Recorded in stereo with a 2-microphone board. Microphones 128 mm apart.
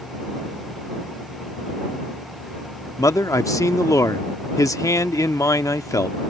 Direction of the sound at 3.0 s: 25° left (ahead or behind).